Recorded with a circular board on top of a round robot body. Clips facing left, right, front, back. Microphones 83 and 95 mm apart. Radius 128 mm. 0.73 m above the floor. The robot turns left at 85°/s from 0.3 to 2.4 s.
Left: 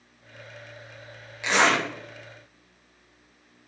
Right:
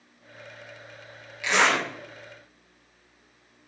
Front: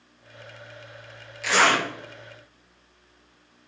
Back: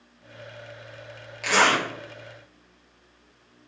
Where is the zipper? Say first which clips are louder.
Left 1 dB, even; 155° left, 1.6 m; by 1.8 s 120° left, 1.6 m.